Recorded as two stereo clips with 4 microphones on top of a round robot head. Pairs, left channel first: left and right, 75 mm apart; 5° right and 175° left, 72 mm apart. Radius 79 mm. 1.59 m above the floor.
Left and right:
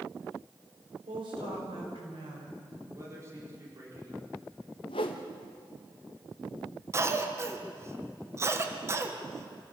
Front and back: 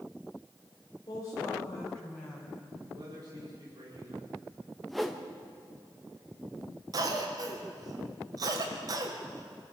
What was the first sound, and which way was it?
A woman speaking, 60° right.